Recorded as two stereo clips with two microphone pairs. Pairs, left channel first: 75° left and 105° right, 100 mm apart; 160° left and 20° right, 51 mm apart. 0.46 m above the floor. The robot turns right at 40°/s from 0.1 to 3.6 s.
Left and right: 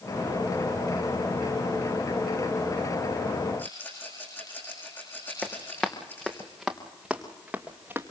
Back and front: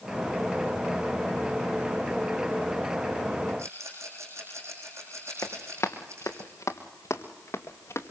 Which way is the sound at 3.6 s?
5° left.